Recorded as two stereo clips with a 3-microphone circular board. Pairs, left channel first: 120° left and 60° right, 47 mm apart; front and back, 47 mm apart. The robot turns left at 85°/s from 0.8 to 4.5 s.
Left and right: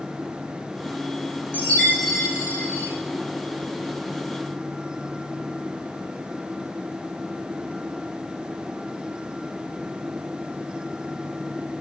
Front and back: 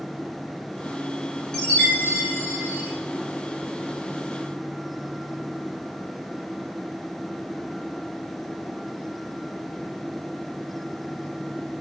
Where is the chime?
80° left, 4 m; by 2.9 s 35° right, 4 m.